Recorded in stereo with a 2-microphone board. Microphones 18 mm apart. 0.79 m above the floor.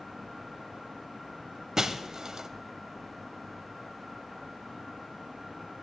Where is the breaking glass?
40° right (ahead or behind), 0.8 m.